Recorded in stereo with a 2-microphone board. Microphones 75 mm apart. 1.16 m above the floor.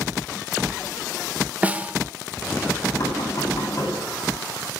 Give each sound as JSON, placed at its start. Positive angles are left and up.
{"t": 1.6, "sound": "a snare drum", "side_deg": -20, "distance_m": 1.1}
{"t": 3.0, "sound": "knocking", "side_deg": 45, "distance_m": 9.0}